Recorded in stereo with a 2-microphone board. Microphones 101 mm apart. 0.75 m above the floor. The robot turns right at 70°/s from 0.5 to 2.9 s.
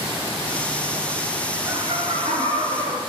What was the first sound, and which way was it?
Laughter, 130° right.